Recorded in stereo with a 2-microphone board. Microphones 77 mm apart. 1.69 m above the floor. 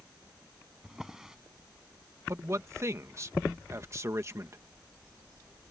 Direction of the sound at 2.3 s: 40° right (ahead or behind).